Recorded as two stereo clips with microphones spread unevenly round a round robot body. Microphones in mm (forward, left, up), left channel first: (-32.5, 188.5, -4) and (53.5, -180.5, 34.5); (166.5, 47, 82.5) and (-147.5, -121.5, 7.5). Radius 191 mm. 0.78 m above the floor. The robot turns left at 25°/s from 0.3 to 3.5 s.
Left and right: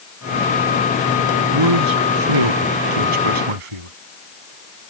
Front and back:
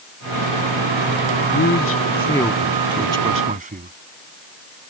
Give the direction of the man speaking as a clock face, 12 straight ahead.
1 o'clock.